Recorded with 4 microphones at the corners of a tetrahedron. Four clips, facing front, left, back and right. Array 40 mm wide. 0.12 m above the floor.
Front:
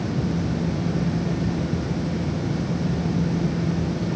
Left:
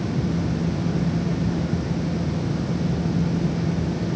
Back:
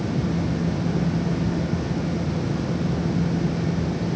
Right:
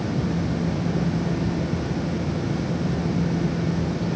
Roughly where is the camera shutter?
I don't hear a camera shutter.